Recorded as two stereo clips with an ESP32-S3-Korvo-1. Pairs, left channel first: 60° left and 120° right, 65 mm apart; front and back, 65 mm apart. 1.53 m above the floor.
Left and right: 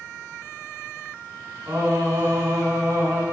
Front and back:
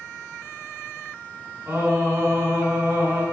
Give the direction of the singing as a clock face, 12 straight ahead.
5 o'clock.